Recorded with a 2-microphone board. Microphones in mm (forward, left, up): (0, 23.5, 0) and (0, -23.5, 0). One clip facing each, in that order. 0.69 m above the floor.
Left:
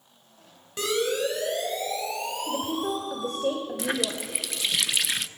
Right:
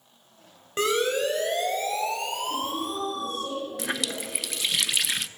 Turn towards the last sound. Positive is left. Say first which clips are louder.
# left 2 dB
turn(degrees=0)  # may be behind; listen again after turning